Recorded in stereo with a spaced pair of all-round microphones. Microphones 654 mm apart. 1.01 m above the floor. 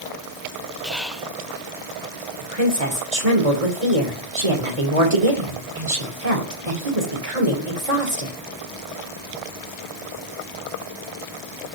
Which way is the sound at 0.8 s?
Centre (ahead or behind).